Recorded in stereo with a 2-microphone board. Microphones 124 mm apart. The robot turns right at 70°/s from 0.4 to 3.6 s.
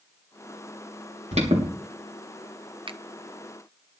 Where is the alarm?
70° right (ahead or behind), 3.5 m; by 1.7 s 45° right (ahead or behind), 3.5 m.